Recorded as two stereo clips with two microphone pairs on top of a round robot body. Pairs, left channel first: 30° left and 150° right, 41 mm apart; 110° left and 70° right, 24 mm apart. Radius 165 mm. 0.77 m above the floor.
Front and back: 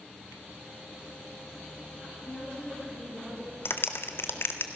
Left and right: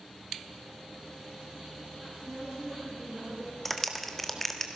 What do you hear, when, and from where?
2.2 s a woman speaking: 25° right, 9.5 m; by 3.5 s 35° right, 8.5 m
3.6 s a clap: 30° left, 1.9 m